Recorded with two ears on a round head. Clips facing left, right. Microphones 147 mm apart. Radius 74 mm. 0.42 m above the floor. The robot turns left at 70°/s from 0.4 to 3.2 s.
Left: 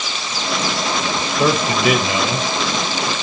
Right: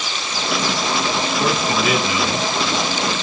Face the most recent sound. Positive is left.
turn(degrees=-30)